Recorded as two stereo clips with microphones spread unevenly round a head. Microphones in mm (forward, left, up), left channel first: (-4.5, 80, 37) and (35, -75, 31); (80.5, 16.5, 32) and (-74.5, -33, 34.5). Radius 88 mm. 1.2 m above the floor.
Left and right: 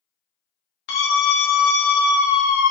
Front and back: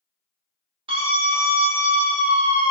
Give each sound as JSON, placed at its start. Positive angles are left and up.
{"t": 0.9, "sound": "a scream", "azimuth_deg": 135, "distance_m": 0.7}